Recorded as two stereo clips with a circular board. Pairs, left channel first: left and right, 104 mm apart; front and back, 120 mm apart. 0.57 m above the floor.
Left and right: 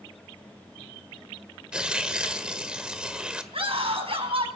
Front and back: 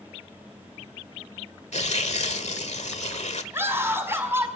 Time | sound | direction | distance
1.7 | tearing paper | 10° right | 1.5 m
3.5 | a scream | 110° right | 5 m